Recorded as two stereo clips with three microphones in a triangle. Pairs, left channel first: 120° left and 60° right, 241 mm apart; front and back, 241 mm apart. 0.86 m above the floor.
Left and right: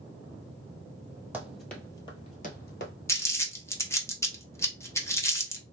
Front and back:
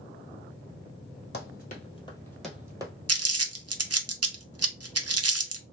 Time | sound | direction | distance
1.3 | running footsteps | 20° left | 1.3 m
3.1 | crumpling | 160° right | 0.6 m